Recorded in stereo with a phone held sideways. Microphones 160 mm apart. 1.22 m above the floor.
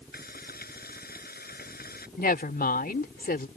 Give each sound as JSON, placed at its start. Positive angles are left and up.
{"t": 0.1, "sound": "frying", "side_deg": 80}
{"t": 2.2, "sound": "a woman speaking", "side_deg": 75}